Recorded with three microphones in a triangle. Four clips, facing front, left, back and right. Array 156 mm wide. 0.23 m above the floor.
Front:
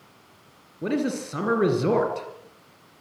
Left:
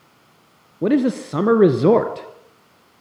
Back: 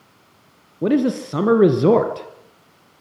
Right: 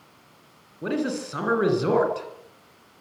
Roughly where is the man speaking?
Behind left.